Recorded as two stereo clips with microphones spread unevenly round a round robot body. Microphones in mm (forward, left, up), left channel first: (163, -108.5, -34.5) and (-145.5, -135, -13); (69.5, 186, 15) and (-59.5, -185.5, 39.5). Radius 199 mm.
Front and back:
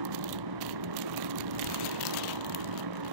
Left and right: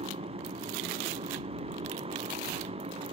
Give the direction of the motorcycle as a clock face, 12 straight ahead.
6 o'clock.